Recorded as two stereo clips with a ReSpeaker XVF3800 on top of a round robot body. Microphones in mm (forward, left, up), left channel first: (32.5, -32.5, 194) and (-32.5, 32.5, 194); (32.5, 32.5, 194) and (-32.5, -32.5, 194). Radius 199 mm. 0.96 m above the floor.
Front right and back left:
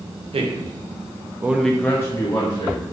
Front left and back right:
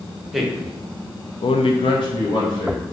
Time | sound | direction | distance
0.3 | a man speaking | 140° left | 0.9 m